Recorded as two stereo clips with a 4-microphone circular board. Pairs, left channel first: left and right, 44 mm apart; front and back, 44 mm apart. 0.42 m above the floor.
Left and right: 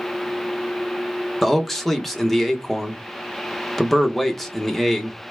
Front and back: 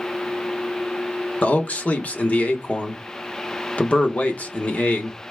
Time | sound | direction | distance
1.4 | a man speaking | 5° left | 0.9 m